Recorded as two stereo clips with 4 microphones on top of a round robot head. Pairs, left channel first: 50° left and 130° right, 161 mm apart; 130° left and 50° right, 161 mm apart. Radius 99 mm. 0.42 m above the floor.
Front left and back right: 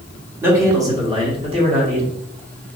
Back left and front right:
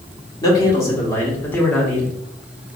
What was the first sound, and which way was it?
A man speaking, 170° left.